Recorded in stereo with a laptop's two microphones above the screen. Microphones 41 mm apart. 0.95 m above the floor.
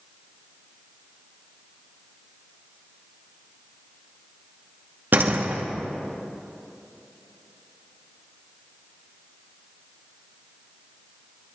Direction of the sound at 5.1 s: 55° right (ahead or behind).